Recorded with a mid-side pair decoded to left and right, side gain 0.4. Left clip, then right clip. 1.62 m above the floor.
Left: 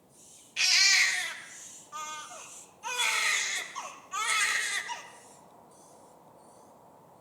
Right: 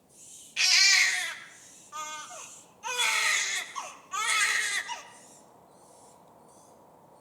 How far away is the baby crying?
About 2.5 m.